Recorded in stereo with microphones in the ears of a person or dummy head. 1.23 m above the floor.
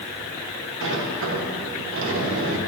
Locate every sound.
0.8 s a sliding door: 65° right (ahead or behind), 1.3 m